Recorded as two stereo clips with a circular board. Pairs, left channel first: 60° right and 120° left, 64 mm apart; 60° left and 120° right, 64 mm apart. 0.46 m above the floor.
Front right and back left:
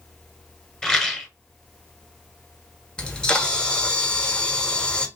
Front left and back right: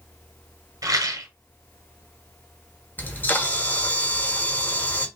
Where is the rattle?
140° right, 1.3 m.